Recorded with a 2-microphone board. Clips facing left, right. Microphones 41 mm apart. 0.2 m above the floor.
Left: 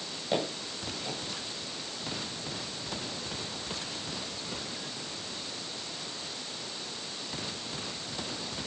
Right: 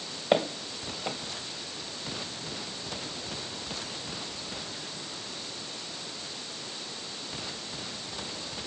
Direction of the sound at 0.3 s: 50° right (ahead or behind).